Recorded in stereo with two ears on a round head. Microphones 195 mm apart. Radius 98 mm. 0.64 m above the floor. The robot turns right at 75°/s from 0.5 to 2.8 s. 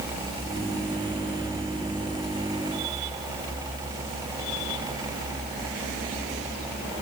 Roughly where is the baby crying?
No baby crying in this recording.